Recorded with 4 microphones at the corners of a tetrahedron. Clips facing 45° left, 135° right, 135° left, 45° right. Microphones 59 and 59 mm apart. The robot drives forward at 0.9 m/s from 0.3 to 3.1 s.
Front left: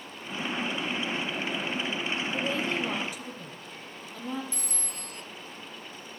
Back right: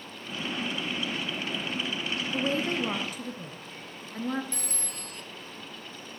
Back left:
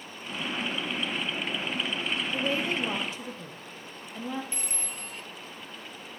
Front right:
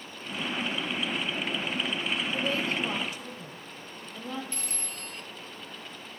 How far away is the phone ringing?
About 1.3 m.